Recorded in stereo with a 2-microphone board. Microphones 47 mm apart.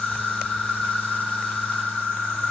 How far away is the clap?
I don't hear a clap.